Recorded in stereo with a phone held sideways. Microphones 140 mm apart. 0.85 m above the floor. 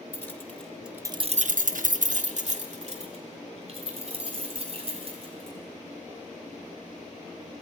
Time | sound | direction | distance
0.1 | keys jangling | 20° left (ahead or behind) | 1.6 m